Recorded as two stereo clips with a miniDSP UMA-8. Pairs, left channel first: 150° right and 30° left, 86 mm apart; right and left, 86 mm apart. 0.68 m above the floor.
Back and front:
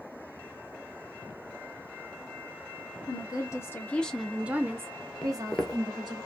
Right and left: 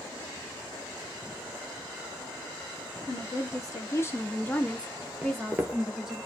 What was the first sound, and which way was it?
A woman speaking, 130° right.